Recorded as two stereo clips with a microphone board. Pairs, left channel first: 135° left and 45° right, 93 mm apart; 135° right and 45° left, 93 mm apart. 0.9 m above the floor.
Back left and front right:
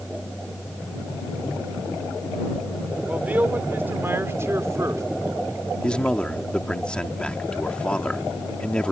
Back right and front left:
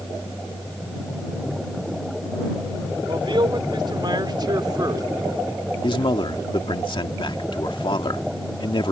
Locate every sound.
3.1 s a man speaking: 30° left; by 5.0 s 5° left
5.8 s a man speaking: 145° right